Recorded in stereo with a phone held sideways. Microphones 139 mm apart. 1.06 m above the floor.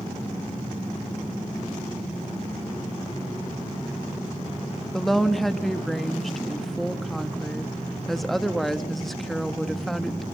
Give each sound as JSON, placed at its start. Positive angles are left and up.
{"t": 4.9, "sound": "a woman speaking", "side_deg": 0, "distance_m": 1.5}